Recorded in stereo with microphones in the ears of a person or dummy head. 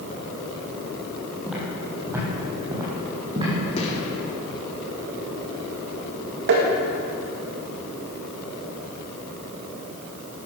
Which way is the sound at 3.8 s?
35° left (ahead or behind).